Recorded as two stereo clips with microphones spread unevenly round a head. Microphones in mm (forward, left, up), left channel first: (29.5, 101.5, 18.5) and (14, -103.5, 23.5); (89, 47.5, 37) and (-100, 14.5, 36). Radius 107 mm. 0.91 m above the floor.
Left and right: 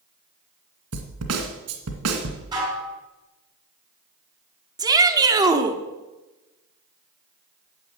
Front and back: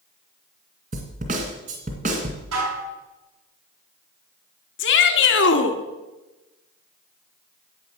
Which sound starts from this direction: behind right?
A snare drum, at 0.9 s.